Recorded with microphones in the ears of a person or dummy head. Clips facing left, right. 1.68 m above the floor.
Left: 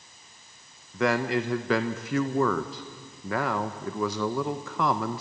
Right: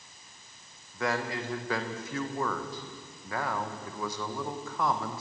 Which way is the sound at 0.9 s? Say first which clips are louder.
Left 7 dB; 50° left (ahead or behind).